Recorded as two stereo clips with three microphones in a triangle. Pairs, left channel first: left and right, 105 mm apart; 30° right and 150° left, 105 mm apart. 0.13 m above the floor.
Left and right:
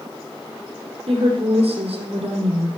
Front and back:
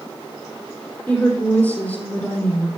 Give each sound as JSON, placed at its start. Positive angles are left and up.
{"t": 1.1, "sound": "a woman speaking", "azimuth_deg": -105, "distance_m": 4.5}